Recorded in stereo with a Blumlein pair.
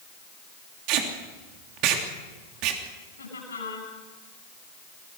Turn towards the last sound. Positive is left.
turn(degrees=70)